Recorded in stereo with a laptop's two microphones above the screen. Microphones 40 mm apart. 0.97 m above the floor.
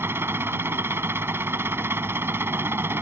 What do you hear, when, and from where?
0.0 s an engine running: 70° right (ahead or behind)